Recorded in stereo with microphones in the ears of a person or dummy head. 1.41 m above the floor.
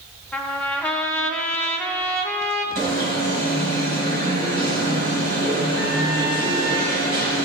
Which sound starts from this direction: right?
An alarm, at 2.8 s.